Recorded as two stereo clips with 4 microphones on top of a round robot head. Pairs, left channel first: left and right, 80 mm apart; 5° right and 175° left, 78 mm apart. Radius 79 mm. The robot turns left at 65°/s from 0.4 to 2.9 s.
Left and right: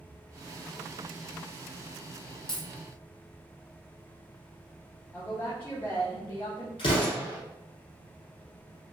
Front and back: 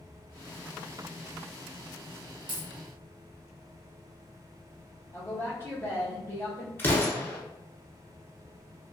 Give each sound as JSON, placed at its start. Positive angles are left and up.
{"t": 2.5, "sound": "a dropped coin", "azimuth_deg": 170, "distance_m": 0.8}
{"t": 5.1, "sound": "a woman speaking", "azimuth_deg": 40, "distance_m": 1.0}
{"t": 6.8, "sound": "an explosion", "azimuth_deg": 60, "distance_m": 1.0}